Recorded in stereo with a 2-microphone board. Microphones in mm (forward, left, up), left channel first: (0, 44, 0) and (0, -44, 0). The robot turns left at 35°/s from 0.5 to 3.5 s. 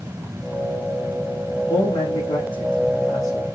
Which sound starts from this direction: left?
A man speaking, at 1.7 s.